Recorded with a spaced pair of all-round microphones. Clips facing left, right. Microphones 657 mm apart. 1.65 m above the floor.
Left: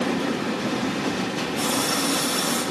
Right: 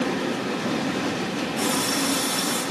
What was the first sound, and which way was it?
A running tap, 15° left (ahead or behind).